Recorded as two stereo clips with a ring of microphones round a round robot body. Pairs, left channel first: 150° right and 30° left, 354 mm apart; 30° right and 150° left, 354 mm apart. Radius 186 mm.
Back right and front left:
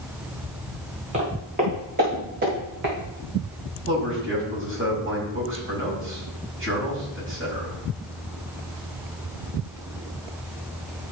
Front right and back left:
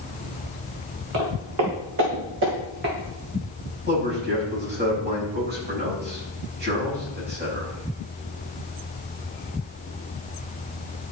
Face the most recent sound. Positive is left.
turn(degrees=85)